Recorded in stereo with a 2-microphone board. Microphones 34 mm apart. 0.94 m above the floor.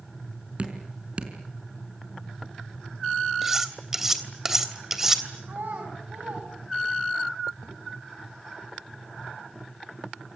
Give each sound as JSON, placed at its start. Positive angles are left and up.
{"t": 0.6, "sound": "dripping", "side_deg": -35, "distance_m": 4.5}
{"t": 3.4, "sound": "cutlery clinking", "side_deg": -10, "distance_m": 3.0}
{"t": 5.5, "sound": "a child speaking", "side_deg": -75, "distance_m": 6.0}